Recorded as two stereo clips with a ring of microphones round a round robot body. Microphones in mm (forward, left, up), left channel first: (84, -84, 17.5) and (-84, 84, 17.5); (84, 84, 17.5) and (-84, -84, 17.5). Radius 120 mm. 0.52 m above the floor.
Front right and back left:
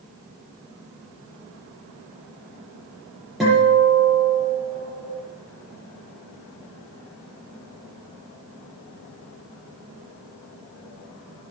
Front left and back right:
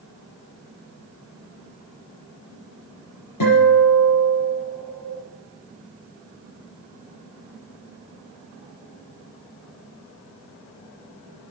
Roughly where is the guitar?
Ahead left.